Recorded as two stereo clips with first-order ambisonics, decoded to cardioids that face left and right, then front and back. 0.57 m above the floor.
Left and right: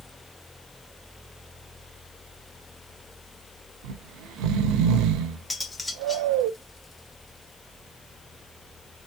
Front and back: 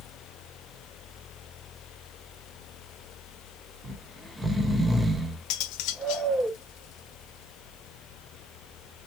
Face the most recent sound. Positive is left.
turn(degrees=10)